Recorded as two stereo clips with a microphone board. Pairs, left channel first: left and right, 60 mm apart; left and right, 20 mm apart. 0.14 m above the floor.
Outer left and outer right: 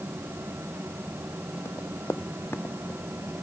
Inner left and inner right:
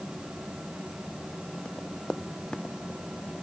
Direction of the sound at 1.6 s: 50° left (ahead or behind).